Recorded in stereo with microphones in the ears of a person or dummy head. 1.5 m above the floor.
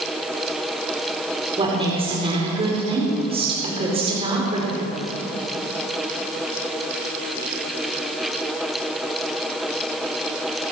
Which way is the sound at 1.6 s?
25° right (ahead or behind).